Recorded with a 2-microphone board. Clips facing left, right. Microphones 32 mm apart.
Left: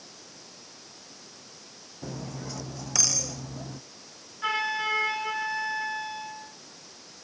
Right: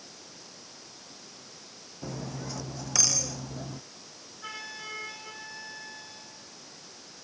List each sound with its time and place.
2.0 s cutlery clinking: centre (ahead or behind)
4.4 s a flute: 45° left (ahead or behind)